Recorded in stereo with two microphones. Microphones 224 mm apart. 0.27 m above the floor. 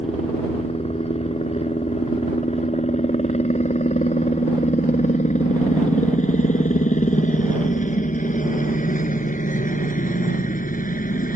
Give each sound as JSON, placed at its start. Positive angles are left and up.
{"t": 0.0, "sound": "a helicopter", "side_deg": 25}